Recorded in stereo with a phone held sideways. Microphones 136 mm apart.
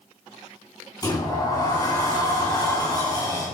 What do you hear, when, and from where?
1.0 s a sliding door: 25° left (ahead or behind), 4 m